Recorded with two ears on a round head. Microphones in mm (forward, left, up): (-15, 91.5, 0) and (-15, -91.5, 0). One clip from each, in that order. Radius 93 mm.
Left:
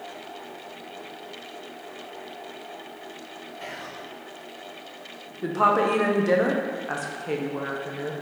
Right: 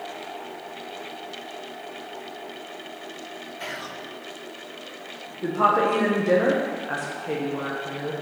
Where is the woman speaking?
15° left (ahead or behind), 0.9 m.